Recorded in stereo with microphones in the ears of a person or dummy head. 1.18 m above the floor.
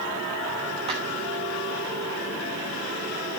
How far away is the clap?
About 3.5 m.